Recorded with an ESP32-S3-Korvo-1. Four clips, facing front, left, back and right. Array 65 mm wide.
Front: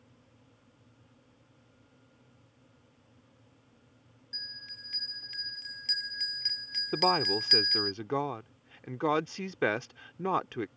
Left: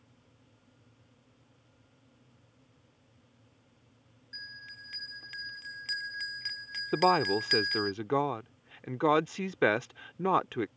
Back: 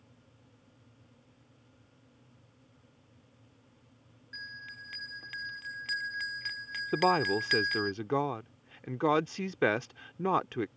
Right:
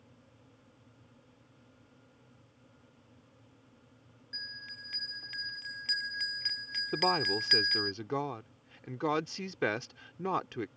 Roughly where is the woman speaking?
Left.